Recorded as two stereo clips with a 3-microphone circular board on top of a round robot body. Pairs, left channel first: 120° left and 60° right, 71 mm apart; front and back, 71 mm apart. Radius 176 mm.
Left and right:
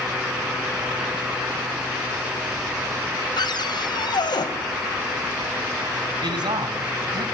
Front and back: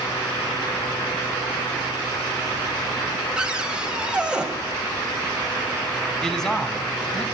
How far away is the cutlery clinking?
I don't hear cutlery clinking.